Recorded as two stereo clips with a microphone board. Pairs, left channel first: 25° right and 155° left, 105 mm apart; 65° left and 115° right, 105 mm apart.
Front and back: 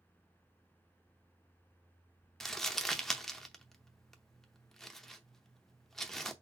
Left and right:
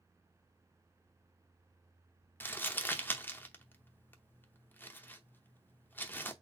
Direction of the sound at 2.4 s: 60° left.